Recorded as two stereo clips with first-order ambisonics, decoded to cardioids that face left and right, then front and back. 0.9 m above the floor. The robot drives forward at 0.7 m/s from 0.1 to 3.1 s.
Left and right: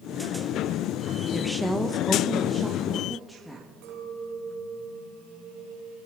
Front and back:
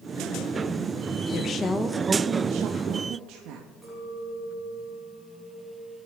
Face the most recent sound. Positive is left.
turn(degrees=-90)